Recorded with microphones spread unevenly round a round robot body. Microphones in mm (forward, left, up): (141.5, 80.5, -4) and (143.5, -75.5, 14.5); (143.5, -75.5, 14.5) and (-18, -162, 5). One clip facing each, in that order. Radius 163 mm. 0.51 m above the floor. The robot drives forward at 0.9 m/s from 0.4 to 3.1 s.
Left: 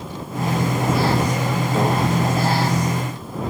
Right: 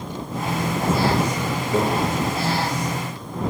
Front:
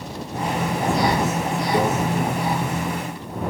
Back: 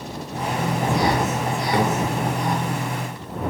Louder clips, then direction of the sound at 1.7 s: Right 1 dB, even; 130° right.